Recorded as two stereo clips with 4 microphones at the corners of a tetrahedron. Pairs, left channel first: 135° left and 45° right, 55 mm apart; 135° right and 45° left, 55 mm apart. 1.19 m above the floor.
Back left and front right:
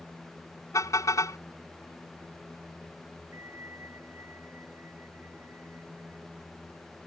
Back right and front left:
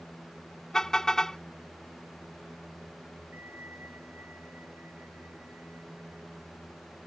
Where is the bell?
10° right.